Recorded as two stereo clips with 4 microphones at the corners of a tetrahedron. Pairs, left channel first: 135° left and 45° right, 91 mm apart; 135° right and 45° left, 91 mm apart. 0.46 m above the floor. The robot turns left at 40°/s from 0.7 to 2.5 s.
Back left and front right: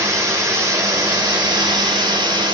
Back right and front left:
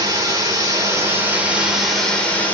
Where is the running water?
5° left, 1.4 m; by 2.5 s 70° right, 1.4 m.